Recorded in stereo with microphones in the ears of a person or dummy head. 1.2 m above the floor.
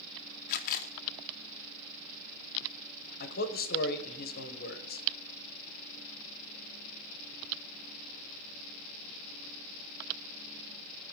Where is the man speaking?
50° left (ahead or behind), 0.9 m.